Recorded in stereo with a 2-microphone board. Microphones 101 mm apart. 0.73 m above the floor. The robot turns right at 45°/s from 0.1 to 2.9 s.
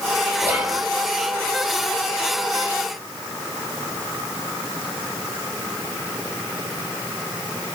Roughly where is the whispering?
Right.